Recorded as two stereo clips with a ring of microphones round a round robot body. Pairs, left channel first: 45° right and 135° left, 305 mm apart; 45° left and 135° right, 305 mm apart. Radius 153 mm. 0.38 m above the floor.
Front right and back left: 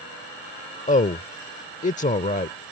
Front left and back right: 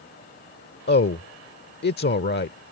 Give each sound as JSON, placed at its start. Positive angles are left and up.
{"t": 0.9, "sound": "a man speaking", "azimuth_deg": 10}